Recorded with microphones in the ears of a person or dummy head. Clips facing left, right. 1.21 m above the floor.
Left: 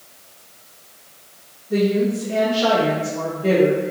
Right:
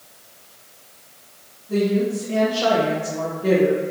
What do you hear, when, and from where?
1.7 s a woman speaking: 70° right (ahead or behind), 1.7 m; by 3.8 s centre (ahead or behind), 0.9 m